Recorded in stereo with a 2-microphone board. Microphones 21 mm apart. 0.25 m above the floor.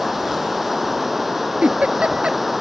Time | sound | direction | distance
0.0 | running water | 10° right (ahead or behind) | ?
1.6 | a giggle | 75° right (ahead or behind) | ?